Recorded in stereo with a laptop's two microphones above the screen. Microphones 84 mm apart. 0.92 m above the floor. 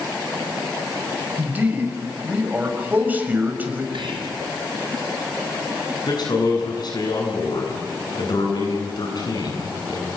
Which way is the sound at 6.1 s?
55° left (ahead or behind).